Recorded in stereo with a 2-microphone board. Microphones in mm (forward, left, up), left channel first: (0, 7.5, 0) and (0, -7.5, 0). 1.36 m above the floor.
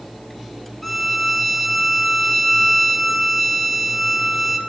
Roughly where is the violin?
Centre.